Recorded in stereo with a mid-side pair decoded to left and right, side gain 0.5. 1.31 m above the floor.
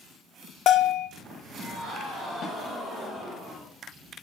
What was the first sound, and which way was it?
A bell, 65° left.